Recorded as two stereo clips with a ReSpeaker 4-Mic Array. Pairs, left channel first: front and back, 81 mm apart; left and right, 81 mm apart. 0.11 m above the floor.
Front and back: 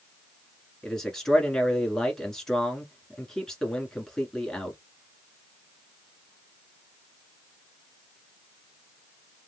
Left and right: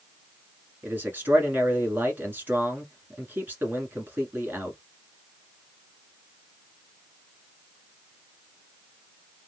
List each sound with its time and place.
0.8 s a man speaking: 75° right, 1.5 m